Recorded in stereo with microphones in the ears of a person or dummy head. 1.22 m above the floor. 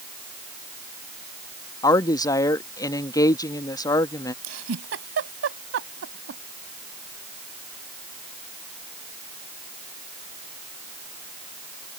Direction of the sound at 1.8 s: 20° left (ahead or behind).